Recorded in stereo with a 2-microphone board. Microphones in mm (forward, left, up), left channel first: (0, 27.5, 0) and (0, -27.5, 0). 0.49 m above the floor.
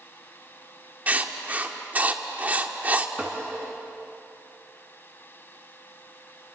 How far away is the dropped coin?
I don't hear a dropped coin.